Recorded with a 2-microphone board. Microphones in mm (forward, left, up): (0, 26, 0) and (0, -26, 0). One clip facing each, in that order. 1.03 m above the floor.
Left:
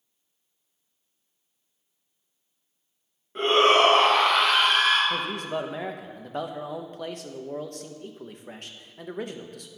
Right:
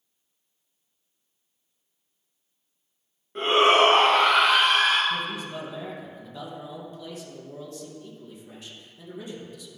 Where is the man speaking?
55° left (ahead or behind), 0.6 m.